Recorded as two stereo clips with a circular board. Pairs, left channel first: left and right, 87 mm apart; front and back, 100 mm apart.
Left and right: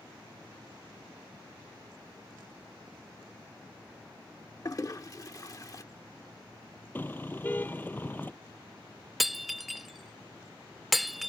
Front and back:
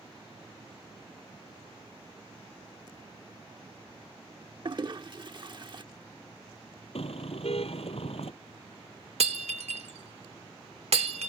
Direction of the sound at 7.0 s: 20° left.